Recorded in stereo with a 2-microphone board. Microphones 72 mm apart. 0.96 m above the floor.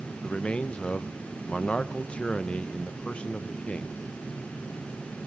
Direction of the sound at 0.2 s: 15° left (ahead or behind).